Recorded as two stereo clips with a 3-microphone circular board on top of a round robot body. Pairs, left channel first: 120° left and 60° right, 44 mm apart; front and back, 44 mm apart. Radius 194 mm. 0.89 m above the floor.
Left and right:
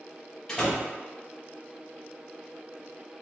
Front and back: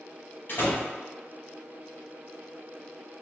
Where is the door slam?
45° left, 1.2 m.